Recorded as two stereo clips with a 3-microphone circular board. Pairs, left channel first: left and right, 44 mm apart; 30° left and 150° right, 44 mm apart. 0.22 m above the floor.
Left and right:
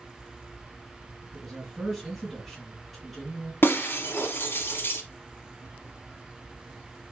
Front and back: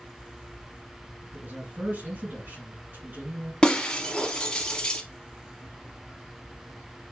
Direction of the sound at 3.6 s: 95° left.